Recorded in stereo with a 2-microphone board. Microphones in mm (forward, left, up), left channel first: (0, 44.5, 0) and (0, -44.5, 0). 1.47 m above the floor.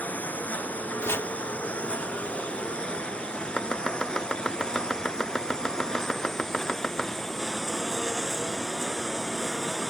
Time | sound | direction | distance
0.0 | a lawn mower | 20° left (ahead or behind) | ?
1.0 | chopping | 30° left (ahead or behind) | ?
3.6 | chopping | 5° left (ahead or behind) | ?